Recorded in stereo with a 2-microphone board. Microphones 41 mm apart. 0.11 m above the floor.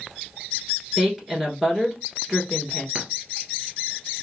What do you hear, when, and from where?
1.0 s a woman speaking: 5° right (ahead or behind), 1.3 m
3.0 s a clink: 25° right (ahead or behind), 1.3 m